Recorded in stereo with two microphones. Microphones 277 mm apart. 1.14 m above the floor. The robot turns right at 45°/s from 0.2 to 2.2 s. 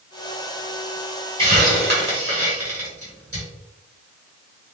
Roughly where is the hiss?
Centre.